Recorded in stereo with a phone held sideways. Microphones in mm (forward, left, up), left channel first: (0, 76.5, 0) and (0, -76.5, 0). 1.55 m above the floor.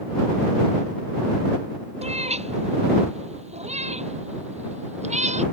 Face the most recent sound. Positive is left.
turn(degrees=-45)  # may be behind; listen again after turning